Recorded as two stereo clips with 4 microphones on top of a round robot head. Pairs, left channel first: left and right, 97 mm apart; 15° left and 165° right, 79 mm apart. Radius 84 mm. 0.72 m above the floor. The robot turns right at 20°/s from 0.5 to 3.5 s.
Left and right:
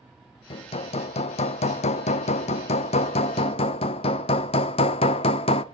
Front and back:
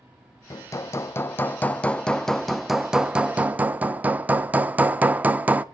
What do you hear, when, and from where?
0.5 s hammering: 60° left, 0.7 m; by 5.6 s 120° left, 0.7 m